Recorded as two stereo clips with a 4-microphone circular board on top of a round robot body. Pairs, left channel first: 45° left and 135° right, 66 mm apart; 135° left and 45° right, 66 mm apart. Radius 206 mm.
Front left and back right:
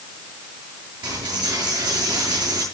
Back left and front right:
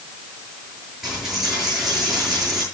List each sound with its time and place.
1.0 s a dropped coin: 130° right, 8 m